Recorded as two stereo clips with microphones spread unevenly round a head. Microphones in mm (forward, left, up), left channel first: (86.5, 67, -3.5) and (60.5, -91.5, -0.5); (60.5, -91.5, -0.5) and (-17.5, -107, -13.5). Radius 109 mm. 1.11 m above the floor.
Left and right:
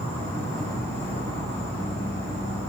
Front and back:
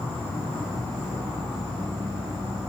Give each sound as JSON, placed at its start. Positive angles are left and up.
{"t": 0.0, "sound": "an insect", "azimuth_deg": 5, "distance_m": 1.4}